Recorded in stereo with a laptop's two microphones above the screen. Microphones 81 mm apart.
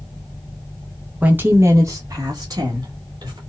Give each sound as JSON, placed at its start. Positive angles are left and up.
{"t": 1.2, "sound": "a woman speaking", "side_deg": -20, "distance_m": 0.6}